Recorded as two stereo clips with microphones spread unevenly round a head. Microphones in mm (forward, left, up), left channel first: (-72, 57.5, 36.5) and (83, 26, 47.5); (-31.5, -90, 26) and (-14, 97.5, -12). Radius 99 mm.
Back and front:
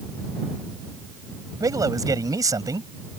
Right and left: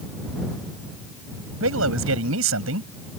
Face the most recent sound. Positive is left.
turn(degrees=55)